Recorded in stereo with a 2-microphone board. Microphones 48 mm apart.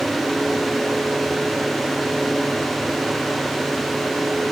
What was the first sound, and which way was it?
Only background noise.